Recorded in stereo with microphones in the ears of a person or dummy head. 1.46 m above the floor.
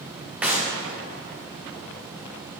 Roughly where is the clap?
Centre.